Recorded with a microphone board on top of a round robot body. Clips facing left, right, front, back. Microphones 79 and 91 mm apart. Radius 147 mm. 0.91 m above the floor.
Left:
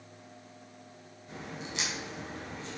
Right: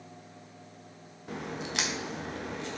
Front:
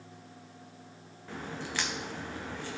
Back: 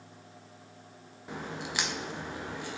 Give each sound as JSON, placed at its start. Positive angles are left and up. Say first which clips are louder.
{"t": 1.3, "sound": "a crack", "louder": "right 5 dB, back 1 dB", "azimuth_deg": -110, "distance_m": 0.9}